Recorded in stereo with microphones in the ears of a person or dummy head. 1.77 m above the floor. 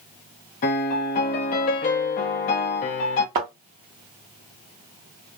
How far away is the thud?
About 1.2 m.